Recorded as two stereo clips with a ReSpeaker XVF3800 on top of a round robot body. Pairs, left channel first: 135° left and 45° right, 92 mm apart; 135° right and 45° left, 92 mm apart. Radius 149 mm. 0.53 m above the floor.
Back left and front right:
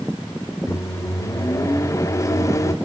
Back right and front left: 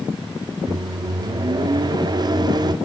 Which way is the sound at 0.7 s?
80° left.